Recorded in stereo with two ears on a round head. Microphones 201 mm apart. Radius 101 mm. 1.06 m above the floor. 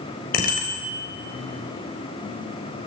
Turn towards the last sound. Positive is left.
turn(degrees=45)  # may be behind; listen again after turning